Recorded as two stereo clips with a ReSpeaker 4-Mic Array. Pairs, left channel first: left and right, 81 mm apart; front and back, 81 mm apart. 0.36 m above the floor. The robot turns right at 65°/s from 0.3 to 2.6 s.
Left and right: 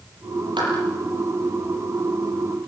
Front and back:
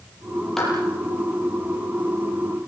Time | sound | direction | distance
0.6 | a clap | 85° right | 8.5 m